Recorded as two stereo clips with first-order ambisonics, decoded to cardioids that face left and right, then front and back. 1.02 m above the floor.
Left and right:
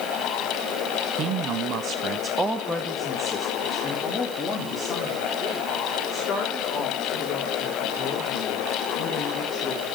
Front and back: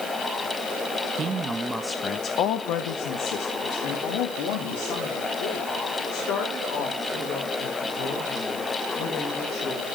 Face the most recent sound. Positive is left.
turn(degrees=25)